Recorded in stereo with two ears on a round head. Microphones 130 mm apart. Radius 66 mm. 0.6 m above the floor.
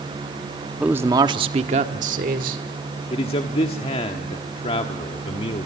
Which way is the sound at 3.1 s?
40° left (ahead or behind).